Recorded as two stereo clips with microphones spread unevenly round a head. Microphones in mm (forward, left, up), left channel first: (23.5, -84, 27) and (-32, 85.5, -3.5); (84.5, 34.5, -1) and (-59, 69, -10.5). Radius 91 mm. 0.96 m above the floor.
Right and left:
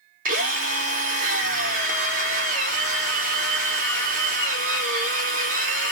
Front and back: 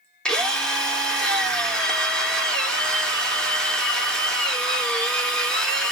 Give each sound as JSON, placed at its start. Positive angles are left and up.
{"t": 0.2, "sound": "a drill", "azimuth_deg": 75, "distance_m": 1.7}